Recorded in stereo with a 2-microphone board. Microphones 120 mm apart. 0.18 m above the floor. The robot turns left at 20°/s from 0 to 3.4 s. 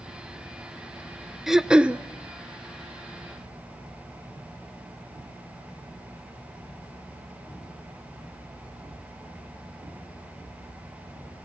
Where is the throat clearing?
Centre (ahead or behind), 0.5 m; by 2.0 s 10° right (ahead or behind), 0.5 m.